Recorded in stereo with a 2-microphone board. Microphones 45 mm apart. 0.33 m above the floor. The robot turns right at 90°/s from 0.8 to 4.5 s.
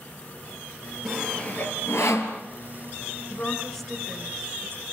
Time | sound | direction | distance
1.1 | sawing | 10° right (ahead or behind) | 4 m
3.3 | a woman speaking | 135° left | 4 m